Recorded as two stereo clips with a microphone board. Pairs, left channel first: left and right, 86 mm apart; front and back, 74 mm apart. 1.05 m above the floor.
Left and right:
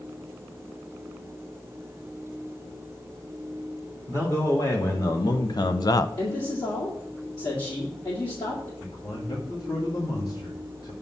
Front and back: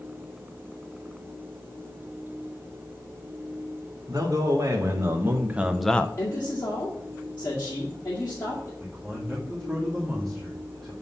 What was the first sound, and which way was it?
A man speaking, 140° left.